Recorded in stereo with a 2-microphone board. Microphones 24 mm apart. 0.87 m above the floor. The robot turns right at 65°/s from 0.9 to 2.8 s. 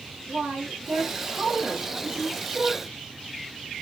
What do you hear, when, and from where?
0.3 s a woman speaking: 75° right, 6 m; by 2.9 s 45° left, 6 m